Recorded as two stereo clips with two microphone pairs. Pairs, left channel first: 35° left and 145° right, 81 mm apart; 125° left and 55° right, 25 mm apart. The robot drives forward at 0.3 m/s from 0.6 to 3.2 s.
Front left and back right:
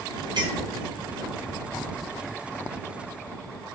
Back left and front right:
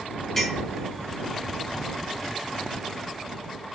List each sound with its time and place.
0.4 s a clink: 165° right, 1.5 m